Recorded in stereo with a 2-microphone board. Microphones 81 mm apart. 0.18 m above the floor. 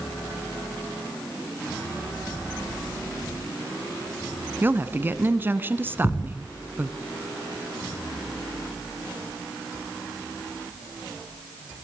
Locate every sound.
4.6 s a woman speaking: 25° right (ahead or behind), 1.5 m
6.0 s a thud: 65° left (ahead or behind), 4.5 m